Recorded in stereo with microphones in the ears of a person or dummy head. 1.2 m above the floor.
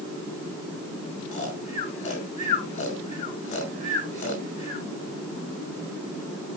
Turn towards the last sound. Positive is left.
turn(degrees=35)  # may be behind; listen again after turning